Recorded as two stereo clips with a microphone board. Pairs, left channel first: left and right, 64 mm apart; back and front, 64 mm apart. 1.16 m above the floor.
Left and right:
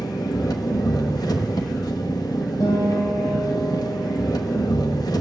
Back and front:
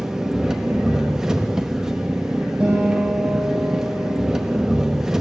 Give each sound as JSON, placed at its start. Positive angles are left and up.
{"t": 0.0, "sound": "an engine running", "azimuth_deg": 80, "distance_m": 1.1}
{"t": 2.6, "sound": "a guitar", "azimuth_deg": 75, "distance_m": 6.5}